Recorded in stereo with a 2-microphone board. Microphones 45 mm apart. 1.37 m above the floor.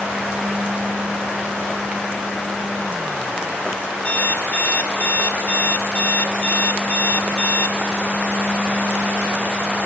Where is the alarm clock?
35° left (ahead or behind), 2 m.